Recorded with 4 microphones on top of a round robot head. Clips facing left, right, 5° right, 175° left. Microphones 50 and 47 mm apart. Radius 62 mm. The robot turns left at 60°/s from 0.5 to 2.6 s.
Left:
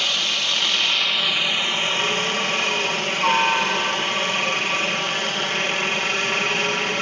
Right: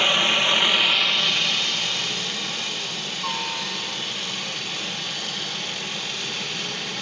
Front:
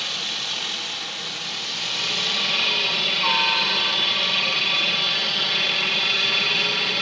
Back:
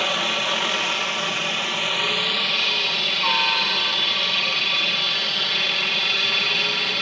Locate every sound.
0.0 s a helicopter: 145° right; by 7.0 s 90° left